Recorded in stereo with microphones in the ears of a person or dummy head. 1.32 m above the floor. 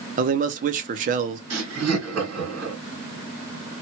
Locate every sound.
0.2 s a man speaking: 40° right (ahead or behind), 0.6 m
1.5 s laughter: 85° right, 1.5 m